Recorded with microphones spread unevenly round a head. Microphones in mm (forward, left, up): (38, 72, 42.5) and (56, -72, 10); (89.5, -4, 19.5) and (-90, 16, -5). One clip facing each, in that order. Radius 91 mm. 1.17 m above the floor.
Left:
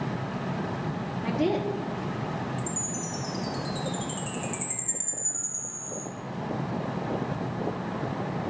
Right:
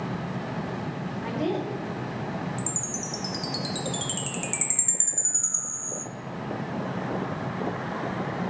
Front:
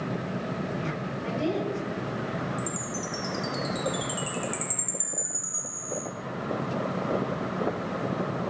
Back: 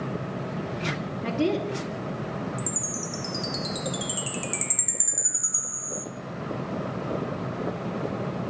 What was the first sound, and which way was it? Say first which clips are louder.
A woman speaking: left 2 dB, back 3 dB; 160° left.